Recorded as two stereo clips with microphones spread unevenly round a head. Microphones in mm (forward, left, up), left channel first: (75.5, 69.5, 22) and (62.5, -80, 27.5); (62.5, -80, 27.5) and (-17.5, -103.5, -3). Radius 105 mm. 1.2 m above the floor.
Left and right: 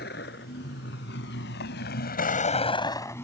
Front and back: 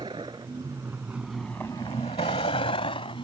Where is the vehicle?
125° left; by 3.2 s 10° left.